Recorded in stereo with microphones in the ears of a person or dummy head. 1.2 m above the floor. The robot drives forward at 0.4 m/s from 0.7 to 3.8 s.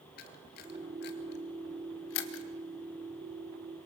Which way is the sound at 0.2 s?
45° left (ahead or behind).